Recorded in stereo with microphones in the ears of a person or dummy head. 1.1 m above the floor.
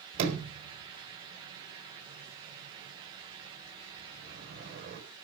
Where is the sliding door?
75° right (ahead or behind), 4 m.